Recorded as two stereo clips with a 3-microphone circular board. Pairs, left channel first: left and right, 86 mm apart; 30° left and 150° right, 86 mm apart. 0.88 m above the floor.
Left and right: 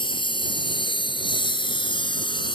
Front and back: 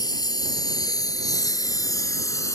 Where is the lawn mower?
70° left; by 2.6 s 80° left.